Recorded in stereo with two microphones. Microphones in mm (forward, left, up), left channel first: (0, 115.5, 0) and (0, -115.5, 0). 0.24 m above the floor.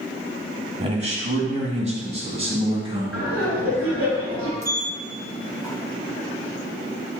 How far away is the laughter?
About 3 m.